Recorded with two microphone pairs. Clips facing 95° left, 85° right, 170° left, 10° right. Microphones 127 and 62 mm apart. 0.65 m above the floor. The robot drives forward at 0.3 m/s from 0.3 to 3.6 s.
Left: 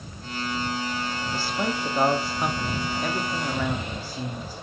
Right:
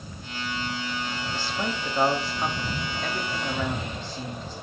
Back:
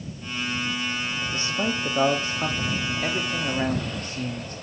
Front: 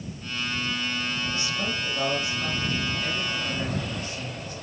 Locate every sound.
1.2 s a man speaking: 165° left, 0.8 m; by 4.5 s 175° left, 1.3 m